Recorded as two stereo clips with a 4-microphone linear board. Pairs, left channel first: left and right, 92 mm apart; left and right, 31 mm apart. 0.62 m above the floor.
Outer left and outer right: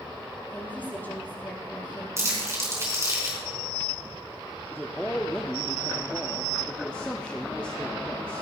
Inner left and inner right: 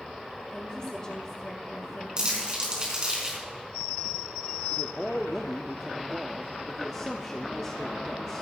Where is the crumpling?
30° right (ahead or behind), 4.5 m.